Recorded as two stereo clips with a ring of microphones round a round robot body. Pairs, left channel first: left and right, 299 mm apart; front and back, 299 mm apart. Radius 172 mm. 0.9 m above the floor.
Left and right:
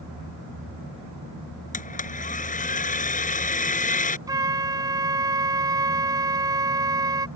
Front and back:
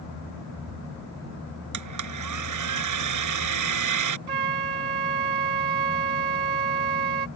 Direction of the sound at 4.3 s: 170° right.